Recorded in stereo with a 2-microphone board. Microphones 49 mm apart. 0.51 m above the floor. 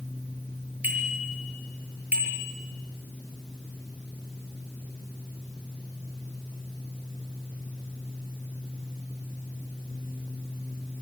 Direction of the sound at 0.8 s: 35° right (ahead or behind).